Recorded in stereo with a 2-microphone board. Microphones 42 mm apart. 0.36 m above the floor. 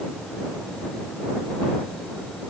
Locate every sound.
Only background noise.